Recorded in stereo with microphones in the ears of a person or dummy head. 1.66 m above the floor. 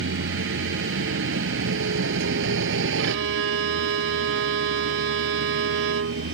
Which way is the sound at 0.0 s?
70° right (ahead or behind).